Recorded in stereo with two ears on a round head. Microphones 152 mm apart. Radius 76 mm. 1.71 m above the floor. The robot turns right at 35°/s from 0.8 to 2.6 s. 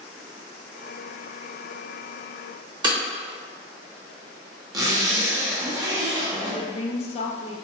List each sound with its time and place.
2.8 s breaking glass: 25° right (ahead or behind), 1.0 m
4.7 s a zipper: 20° right (ahead or behind), 0.7 m
6.4 s a woman speaking: 35° left (ahead or behind), 0.5 m